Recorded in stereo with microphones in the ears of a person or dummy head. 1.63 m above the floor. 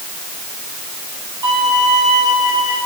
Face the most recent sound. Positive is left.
turn(degrees=-25)  # may be behind; listen again after turning